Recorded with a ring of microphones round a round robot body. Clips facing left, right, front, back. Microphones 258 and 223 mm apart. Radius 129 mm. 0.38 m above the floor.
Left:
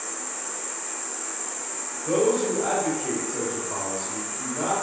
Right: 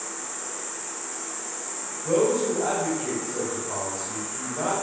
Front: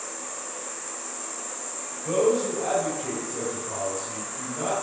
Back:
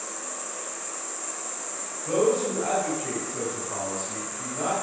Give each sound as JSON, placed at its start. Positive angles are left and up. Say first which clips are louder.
{"t": 0.0, "sound": "an insect", "louder": "even, even", "azimuth_deg": -20, "distance_m": 1.7}
{"t": 2.0, "sound": "a man speaking", "louder": "even, front 1 dB", "azimuth_deg": -10, "distance_m": 2.0}